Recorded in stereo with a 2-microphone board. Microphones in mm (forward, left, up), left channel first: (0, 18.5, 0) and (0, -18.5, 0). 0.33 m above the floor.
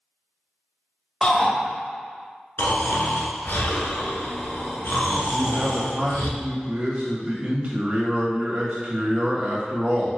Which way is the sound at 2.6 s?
75° left (ahead or behind).